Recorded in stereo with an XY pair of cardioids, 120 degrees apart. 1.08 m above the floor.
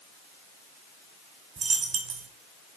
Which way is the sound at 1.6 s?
50° right.